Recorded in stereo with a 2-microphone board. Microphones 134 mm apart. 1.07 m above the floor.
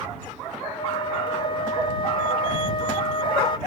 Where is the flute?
40° left (ahead or behind).